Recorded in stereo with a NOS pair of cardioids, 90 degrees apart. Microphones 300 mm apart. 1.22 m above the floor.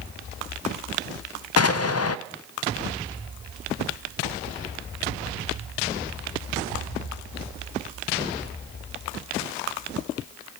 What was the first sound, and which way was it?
An explosion, 55° left.